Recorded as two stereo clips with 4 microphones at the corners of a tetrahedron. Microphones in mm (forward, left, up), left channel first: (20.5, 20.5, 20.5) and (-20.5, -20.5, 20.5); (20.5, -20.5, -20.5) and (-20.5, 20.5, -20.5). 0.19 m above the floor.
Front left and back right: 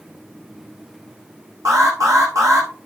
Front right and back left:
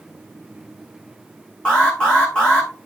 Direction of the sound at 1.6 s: 120° right.